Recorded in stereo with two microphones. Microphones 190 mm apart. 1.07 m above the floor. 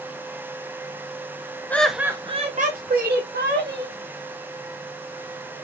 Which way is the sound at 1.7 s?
10° left (ahead or behind).